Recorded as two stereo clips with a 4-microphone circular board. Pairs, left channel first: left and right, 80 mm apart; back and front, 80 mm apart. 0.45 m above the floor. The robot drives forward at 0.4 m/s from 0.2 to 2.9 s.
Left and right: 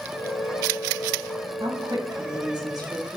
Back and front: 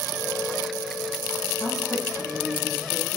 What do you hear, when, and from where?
1.6 s a woman speaking: 110° right, 2.5 m; by 3.2 s 120° right, 3 m